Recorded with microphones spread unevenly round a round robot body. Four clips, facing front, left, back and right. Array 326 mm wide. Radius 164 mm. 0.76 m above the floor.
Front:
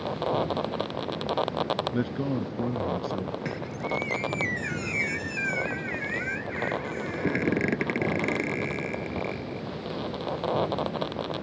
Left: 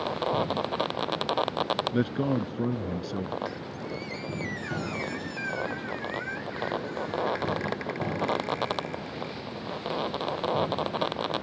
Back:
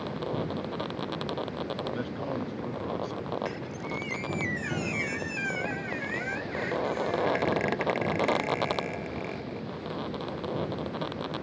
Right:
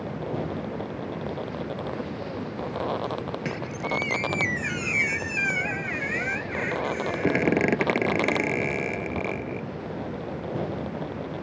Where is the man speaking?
60° left.